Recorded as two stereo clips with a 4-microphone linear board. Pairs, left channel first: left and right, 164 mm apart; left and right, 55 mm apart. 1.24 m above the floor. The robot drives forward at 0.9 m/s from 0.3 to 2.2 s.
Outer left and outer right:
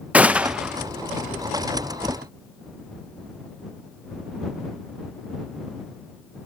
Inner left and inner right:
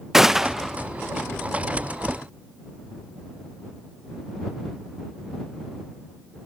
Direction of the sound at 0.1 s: 10° right (ahead or behind).